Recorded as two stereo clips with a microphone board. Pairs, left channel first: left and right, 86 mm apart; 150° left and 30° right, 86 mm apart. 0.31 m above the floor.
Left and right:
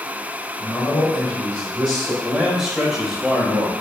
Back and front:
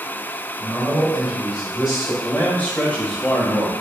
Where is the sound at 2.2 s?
165° right, 1.0 m.